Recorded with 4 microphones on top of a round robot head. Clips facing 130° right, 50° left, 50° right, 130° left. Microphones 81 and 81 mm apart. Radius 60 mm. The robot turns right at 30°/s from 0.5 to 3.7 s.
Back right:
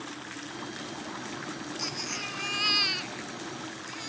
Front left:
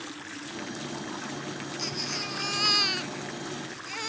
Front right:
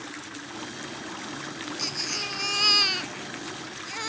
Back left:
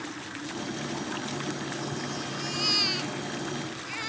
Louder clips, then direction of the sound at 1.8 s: Front left 2 dB, back left 2 dB; 40° right.